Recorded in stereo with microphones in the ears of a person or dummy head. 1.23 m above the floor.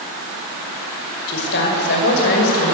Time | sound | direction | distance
1.3 | a woman speaking | 65° left (ahead or behind) | 5.5 m